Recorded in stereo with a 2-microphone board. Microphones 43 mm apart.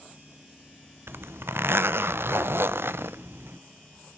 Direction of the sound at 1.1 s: 70° right (ahead or behind).